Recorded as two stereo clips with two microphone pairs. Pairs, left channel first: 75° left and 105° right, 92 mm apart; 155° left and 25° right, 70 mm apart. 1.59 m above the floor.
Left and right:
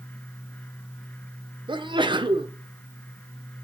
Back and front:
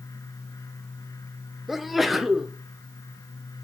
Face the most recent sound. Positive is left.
turn(degrees=-110)